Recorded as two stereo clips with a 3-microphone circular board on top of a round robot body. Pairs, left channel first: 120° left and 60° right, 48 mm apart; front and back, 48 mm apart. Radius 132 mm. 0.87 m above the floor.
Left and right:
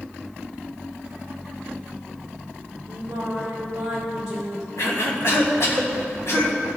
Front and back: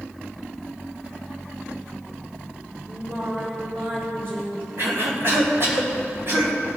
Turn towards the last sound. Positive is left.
turn(degrees=145)